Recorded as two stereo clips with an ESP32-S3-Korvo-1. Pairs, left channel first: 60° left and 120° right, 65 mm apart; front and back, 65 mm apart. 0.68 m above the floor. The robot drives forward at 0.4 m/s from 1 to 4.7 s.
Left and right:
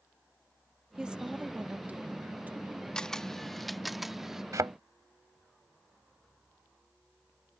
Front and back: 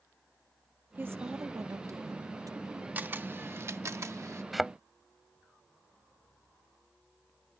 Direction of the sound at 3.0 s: 135° left.